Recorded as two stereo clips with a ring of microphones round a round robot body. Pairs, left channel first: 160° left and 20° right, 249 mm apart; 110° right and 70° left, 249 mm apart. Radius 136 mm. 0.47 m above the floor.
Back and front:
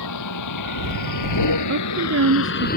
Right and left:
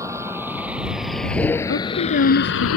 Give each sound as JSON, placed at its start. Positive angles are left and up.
{"t": 0.0, "sound": "a vehicle", "azimuth_deg": 145}
{"t": 1.7, "sound": "a woman speaking", "azimuth_deg": -65}